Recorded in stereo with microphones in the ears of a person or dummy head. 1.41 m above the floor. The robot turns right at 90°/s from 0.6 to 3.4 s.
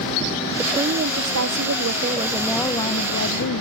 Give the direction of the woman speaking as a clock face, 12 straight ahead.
6 o'clock.